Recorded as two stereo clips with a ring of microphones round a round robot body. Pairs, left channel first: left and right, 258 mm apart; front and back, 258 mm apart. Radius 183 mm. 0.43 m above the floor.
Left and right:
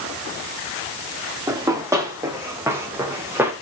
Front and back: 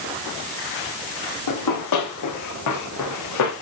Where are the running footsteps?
10° right, 8.5 m.